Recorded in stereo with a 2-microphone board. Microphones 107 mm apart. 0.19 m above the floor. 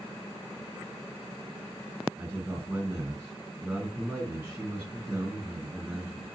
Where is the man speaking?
15° right (ahead or behind), 2.5 m.